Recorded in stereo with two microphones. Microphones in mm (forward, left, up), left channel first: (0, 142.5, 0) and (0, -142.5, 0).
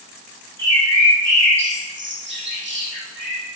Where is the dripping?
No dripping in this recording.